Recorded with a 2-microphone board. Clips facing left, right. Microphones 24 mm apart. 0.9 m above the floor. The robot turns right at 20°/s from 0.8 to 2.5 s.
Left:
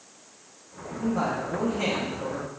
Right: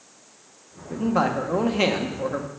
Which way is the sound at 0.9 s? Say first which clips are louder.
Right 5 dB; 80° right.